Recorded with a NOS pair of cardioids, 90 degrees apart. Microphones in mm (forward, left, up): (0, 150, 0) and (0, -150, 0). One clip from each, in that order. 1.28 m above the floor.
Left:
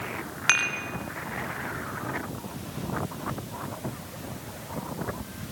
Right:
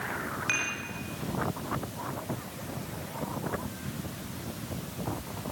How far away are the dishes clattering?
About 3 m.